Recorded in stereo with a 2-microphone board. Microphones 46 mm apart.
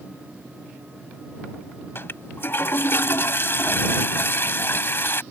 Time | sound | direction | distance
1.9 | a toilet flushing | 50° left (ahead or behind) | ?